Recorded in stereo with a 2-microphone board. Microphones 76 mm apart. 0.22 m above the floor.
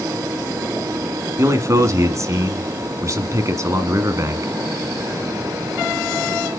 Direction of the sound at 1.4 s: 40° right (ahead or behind).